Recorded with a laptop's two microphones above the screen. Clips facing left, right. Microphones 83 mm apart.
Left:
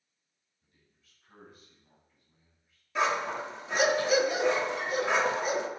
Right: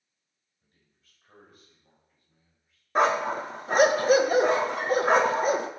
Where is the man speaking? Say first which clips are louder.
Even; 45° right (ahead or behind), 5 m; by 2.8 s 30° right (ahead or behind), 7 m.